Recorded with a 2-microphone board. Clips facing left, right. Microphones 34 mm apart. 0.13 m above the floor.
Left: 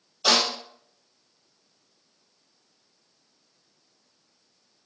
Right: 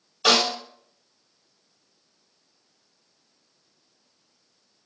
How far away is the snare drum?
About 2.0 m.